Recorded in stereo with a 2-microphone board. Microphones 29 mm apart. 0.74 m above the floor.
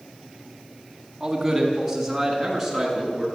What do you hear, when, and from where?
1.2 s a man speaking: 10° right (ahead or behind), 5 m; by 3.3 s centre (ahead or behind), 8 m